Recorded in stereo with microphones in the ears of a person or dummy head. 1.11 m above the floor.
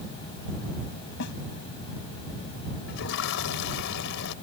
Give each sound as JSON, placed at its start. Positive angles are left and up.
{"t": 1.2, "sound": "a snare drum", "side_deg": 65}
{"t": 2.9, "sound": "a toilet flushing", "side_deg": 70}